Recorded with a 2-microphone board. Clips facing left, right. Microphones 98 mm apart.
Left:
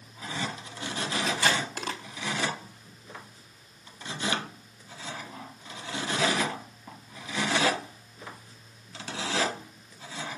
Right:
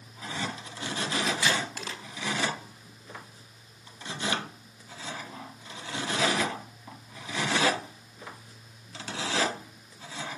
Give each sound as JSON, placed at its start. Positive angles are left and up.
{"t": 1.3, "sound": "tape being pulled", "side_deg": 50, "distance_m": 4.5}